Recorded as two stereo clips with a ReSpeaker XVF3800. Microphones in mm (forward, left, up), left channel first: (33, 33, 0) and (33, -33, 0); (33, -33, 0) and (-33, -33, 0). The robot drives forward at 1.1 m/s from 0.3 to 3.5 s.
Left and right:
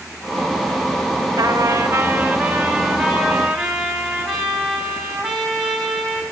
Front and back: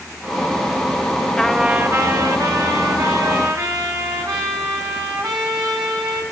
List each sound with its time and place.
1.4 s a trumpet: 75° right, 0.6 m; by 6.2 s 165° right, 2.5 m